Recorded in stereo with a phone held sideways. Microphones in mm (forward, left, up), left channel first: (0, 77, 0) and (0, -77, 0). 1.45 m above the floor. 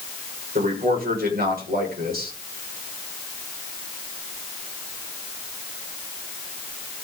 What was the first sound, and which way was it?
A man speaking, 80° right.